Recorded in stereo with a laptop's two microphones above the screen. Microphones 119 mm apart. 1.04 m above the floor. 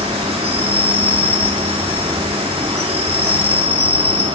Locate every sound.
0.0 s an insect: 55° right (ahead or behind), 4 m